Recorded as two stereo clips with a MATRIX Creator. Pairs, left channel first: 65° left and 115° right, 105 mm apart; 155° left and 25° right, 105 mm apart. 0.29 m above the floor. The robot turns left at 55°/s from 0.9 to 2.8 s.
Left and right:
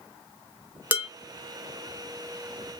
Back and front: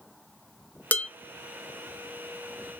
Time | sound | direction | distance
0.9 | dishes clattering | 155° right | 0.6 m